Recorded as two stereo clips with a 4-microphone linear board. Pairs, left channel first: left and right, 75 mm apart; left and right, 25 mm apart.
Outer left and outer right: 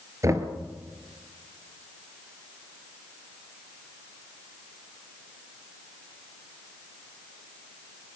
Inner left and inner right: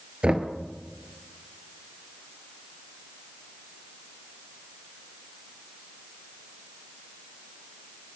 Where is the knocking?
45° right (ahead or behind), 1.8 m.